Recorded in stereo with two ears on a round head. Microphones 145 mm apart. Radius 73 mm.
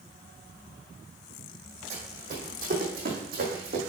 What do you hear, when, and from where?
1.9 s running footsteps: 45° right (ahead or behind), 3 m; by 3.8 s 65° right (ahead or behind), 3.5 m